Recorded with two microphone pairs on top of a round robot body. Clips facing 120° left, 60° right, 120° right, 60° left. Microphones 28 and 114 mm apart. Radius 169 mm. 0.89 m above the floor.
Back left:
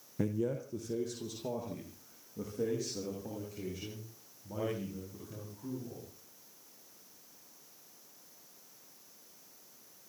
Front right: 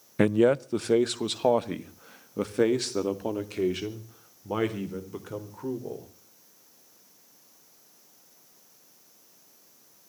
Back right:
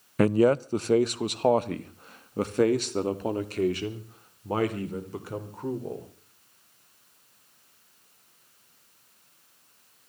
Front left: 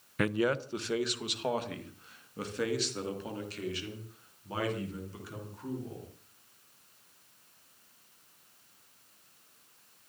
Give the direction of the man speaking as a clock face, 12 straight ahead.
2 o'clock.